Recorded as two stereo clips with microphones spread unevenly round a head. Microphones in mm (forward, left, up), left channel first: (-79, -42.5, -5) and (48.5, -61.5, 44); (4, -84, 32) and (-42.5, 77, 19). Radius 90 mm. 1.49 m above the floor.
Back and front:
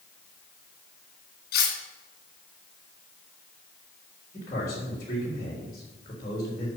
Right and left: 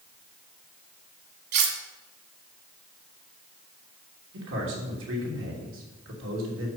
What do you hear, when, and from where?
1.5 s cutlery clinking: 130° left, 2.5 m
4.3 s a man speaking: 100° left, 3 m